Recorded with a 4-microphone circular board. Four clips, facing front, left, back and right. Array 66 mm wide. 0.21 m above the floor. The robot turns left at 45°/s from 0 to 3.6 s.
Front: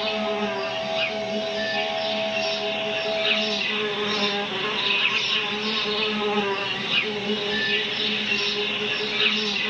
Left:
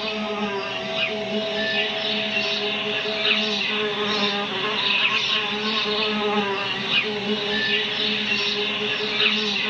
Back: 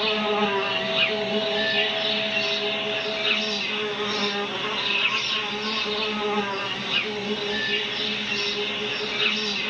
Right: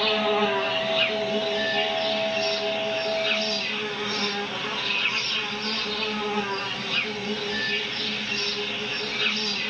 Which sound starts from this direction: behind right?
An insect, at 0.0 s.